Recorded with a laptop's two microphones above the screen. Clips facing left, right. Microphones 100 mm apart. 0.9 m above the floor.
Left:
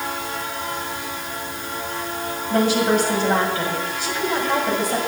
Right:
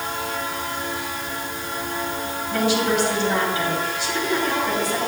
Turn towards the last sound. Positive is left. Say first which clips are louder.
# left 3 dB
turn(degrees=45)  # may be behind; listen again after turning